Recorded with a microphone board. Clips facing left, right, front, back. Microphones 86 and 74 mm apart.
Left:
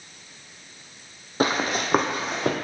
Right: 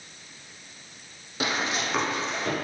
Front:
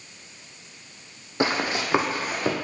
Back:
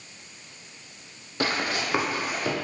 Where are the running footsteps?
60° left, 0.7 m; by 2.5 s 65° left, 1.5 m.